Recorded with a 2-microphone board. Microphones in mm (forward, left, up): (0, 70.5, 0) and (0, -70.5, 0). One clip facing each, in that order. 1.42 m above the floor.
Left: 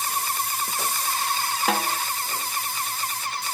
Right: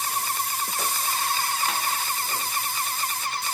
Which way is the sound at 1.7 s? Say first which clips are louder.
Left 4 dB; 75° left (ahead or behind).